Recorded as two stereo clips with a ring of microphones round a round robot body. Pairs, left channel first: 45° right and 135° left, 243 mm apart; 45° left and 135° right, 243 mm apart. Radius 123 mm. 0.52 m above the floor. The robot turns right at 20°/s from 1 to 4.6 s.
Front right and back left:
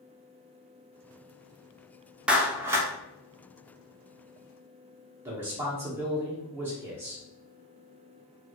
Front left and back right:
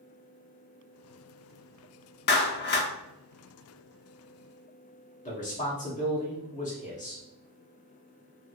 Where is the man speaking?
60° left, 0.8 m.